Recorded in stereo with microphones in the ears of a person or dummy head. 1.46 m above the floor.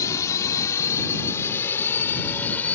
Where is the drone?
20° left (ahead or behind); by 2.8 s 10° left (ahead or behind).